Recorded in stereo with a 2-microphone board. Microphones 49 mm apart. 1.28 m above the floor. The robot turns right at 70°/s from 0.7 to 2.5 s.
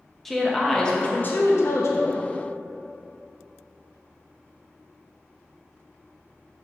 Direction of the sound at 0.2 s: 5° left.